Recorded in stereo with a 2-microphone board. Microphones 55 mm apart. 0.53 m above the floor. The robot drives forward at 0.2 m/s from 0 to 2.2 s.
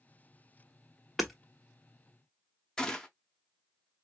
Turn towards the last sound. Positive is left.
turn(degrees=10)  # may be behind; listen again after turning